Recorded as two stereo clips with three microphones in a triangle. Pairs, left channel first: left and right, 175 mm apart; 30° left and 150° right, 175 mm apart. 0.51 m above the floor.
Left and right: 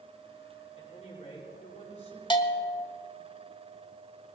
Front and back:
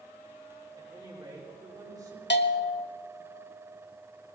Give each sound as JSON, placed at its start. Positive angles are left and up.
{"t": 0.8, "sound": "a woman speaking", "azimuth_deg": 145, "distance_m": 6.5}
{"t": 2.3, "sound": "a bell", "azimuth_deg": 30, "distance_m": 0.9}